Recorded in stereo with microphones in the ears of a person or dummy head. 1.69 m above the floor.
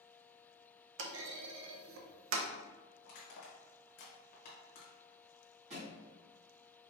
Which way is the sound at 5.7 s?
40° right (ahead or behind).